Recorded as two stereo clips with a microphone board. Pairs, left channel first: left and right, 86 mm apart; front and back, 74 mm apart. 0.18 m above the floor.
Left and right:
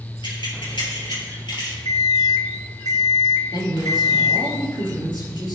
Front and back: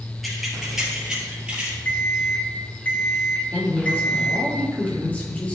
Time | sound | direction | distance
0.2 | keys jangling | 90° left | 3 m
1.9 | an alarm clock | 60° left | 1.1 m
3.5 | a man speaking | 65° left | 4 m